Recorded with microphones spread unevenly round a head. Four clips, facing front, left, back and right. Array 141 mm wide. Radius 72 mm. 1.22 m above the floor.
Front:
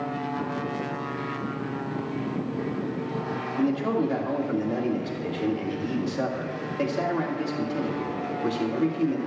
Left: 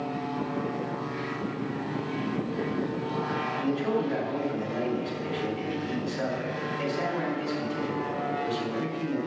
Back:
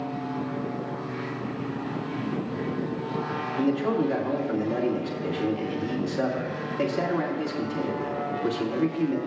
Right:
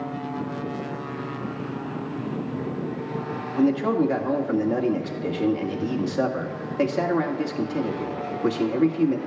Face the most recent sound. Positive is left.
turn(degrees=-85)